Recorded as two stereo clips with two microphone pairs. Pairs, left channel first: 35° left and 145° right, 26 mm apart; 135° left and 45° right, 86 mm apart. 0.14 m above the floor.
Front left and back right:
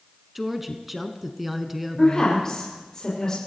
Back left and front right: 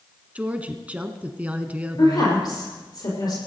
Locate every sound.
0.3 s a woman speaking: 75° right, 1.1 m
2.0 s a woman speaking: 100° left, 5 m